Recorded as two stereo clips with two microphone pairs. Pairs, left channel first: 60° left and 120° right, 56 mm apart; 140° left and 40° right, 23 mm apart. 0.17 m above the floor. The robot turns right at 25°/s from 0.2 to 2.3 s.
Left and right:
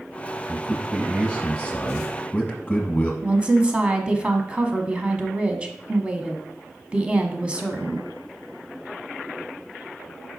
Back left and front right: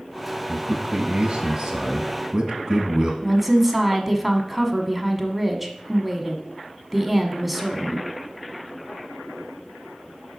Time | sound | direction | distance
0.5 | a man speaking | 40° right | 1.2 m
3.2 | a woman speaking | 110° right | 1.0 m